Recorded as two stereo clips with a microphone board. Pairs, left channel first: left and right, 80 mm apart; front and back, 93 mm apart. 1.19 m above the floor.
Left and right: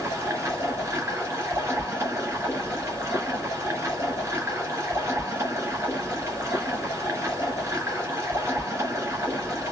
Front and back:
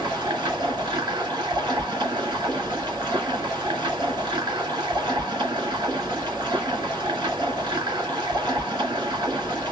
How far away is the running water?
About 2 m.